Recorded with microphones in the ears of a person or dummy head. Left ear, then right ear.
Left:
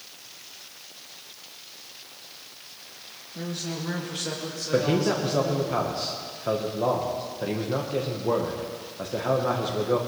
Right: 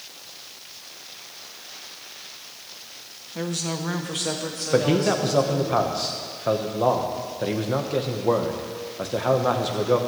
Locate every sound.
3.4 s a woman speaking: 50° right (ahead or behind), 1.1 m; by 5.7 s 10° right (ahead or behind), 3.5 m
4.7 s a man speaking: 15° right (ahead or behind), 1.1 m